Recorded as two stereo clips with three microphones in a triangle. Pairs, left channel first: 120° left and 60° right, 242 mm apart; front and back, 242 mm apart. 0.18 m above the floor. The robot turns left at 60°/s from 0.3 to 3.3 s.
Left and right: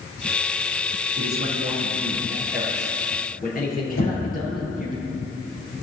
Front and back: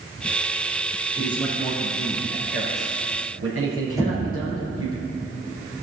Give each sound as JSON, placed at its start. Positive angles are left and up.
{"t": 1.2, "sound": "a man speaking", "azimuth_deg": -60, "distance_m": 3.0}
{"t": 4.0, "sound": "knocking", "azimuth_deg": 105, "distance_m": 3.0}